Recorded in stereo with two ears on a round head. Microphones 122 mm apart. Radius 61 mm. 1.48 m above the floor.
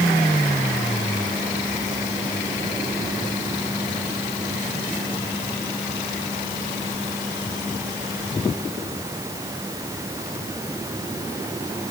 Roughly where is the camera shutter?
No camera shutter in this recording.